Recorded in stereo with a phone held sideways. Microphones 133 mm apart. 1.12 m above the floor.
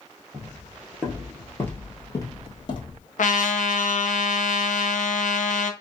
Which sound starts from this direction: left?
A trumpet, at 3.2 s.